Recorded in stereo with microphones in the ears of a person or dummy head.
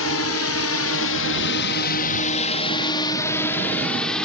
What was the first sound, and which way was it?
A drone, 70° left (ahead or behind).